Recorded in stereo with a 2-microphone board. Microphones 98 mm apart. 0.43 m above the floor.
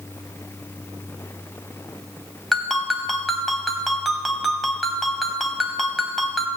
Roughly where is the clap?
No clap in this recording.